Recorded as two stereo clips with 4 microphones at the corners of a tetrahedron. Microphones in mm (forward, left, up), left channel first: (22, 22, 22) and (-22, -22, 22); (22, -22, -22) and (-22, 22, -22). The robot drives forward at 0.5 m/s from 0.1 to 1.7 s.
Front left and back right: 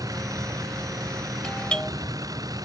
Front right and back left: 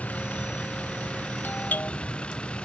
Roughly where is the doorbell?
Ahead.